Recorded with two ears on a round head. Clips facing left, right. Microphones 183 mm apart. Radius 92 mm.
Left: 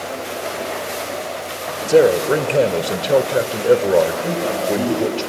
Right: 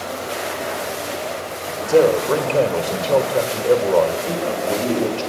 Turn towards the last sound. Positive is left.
turn(degrees=70)  # may be behind; listen again after turning